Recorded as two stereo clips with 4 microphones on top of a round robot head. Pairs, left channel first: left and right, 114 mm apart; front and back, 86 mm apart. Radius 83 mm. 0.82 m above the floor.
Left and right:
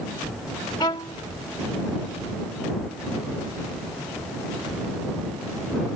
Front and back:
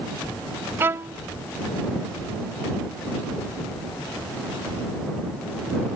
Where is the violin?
140° left.